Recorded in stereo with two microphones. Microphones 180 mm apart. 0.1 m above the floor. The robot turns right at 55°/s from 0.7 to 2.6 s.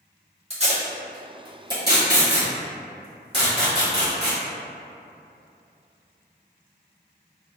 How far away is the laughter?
No laughter in this recording.